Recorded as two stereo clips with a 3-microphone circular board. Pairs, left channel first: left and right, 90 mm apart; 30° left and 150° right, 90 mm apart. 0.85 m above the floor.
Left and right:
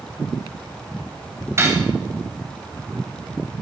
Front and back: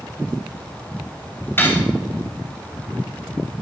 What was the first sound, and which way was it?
Cutlery clinking, 35° right.